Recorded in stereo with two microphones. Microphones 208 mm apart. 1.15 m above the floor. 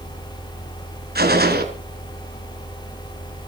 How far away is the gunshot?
About 2.5 m.